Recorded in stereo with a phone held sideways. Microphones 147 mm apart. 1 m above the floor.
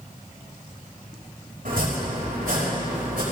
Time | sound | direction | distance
1.6 | chopping | 80° right | 5.5 m